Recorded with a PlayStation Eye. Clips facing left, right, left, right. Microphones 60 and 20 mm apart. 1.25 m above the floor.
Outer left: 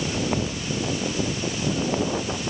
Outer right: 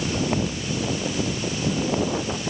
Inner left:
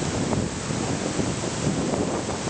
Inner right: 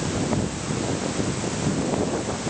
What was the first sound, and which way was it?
Only background noise.